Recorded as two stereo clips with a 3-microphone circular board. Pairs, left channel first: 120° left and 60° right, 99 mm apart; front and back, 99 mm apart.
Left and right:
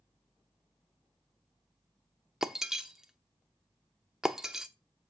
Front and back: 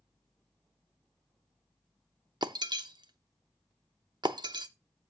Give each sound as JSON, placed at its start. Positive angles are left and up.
{"t": 2.4, "sound": "breaking glass", "azimuth_deg": -145, "distance_m": 0.7}